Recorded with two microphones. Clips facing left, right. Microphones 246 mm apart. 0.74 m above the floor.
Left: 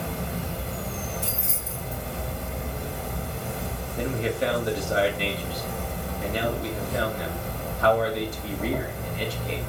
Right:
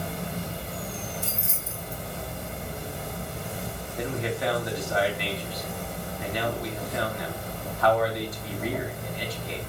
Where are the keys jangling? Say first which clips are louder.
Left 2 dB; 40° left (ahead or behind), 1.2 m.